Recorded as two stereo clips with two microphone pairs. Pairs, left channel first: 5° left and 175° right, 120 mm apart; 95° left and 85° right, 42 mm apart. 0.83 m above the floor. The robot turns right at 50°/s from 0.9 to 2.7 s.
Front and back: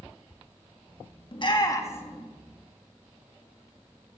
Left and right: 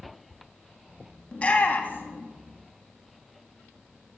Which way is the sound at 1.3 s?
35° left.